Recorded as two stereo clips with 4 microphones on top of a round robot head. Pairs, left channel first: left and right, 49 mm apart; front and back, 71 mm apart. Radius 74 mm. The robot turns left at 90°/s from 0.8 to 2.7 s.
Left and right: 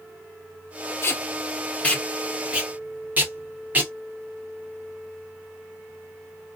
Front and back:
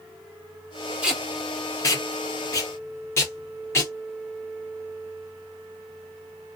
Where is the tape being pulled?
110° left, 1.8 m; by 3.9 s 40° right, 1.8 m.